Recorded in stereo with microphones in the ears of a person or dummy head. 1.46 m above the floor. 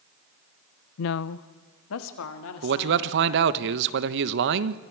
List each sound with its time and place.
1.0 s a woman speaking: 50° left (ahead or behind), 0.6 m; by 3.4 s 85° left, 4 m
2.6 s a man speaking: 60° right (ahead or behind), 1.0 m